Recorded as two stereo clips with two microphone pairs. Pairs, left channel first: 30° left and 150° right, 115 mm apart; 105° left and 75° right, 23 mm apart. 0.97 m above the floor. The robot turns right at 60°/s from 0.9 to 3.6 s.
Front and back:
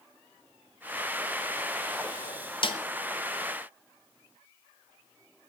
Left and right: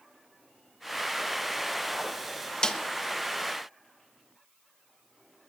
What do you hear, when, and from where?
2.6 s a snare drum: 55° left, 1.2 m; by 2.8 s 65° left, 1.2 m